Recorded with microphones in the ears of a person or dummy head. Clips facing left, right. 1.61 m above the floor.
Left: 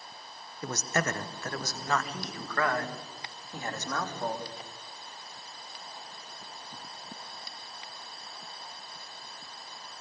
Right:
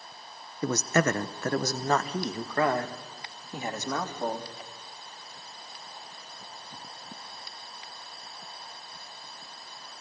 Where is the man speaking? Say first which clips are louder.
Right 6 dB; 75° right (ahead or behind), 0.9 m; by 4.5 s 5° right (ahead or behind), 3.5 m.